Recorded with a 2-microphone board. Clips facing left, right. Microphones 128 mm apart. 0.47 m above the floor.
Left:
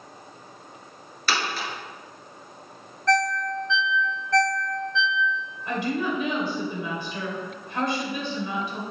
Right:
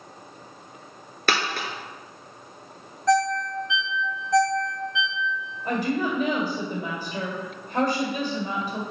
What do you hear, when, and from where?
1.3 s a dropped coin: 60° right (ahead or behind), 1.0 m
3.1 s a ringtone: 15° right (ahead or behind), 0.6 m
5.7 s a woman speaking: 45° right (ahead or behind), 2 m